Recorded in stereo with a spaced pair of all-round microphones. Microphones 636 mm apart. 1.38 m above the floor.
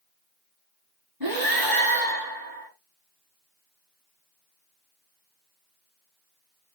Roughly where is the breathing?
Right.